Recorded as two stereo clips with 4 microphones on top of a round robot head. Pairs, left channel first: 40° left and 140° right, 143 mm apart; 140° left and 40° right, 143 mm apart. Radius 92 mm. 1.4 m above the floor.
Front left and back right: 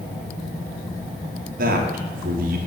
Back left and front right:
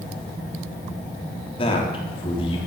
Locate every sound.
1.6 s a man speaking: 165° right, 3 m